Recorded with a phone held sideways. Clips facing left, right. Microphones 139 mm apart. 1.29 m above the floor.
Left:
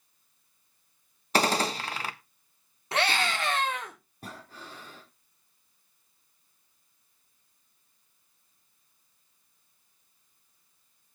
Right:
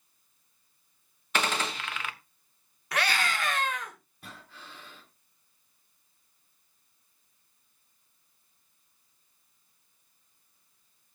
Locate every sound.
1.3 s a gunshot: 35° left (ahead or behind), 1.2 m
2.9 s a scream: 30° left (ahead or behind), 3.5 m
4.2 s breathing: 40° left (ahead or behind), 3.5 m